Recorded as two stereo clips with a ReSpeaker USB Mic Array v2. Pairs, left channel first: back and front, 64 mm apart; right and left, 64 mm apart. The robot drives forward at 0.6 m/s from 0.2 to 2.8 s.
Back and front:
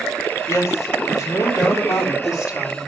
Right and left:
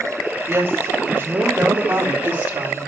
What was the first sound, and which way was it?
A woman speaking, 140° left.